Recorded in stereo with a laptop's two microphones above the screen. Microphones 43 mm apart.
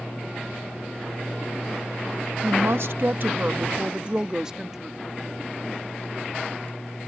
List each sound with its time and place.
2.4 s a woman speaking: 70° right (ahead or behind); by 5.0 s 10° right (ahead or behind)